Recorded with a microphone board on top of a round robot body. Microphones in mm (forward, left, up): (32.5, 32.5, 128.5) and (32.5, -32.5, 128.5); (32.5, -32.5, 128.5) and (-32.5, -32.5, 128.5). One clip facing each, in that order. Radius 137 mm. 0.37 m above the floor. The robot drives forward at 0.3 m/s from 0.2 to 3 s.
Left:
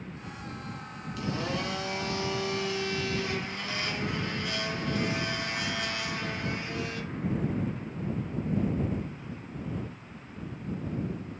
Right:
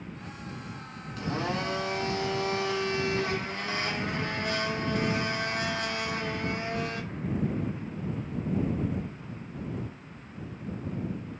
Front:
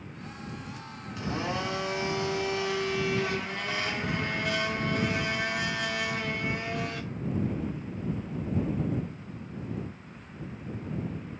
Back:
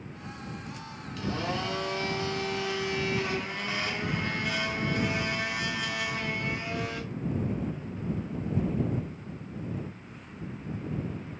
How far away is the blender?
About 1.4 m.